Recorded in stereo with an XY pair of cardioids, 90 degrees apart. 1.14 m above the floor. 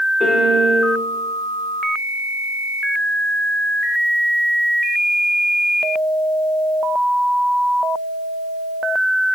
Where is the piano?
45° left, 0.8 m.